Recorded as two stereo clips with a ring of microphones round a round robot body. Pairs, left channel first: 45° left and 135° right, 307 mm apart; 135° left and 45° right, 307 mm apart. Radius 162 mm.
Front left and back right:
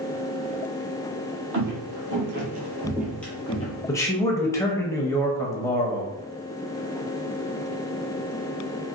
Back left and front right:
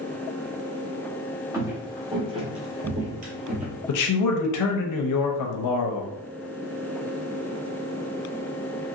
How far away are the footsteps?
About 1.4 m.